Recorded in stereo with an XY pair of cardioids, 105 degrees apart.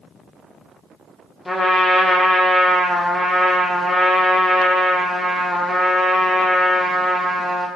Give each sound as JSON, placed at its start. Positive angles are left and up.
{"t": 1.4, "sound": "a trumpet", "azimuth_deg": 20, "distance_m": 0.6}